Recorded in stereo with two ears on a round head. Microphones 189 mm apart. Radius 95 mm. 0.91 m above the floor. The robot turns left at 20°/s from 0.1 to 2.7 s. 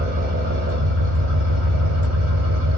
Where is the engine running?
45° right, 1.3 m; by 2.8 s 100° right, 1.3 m.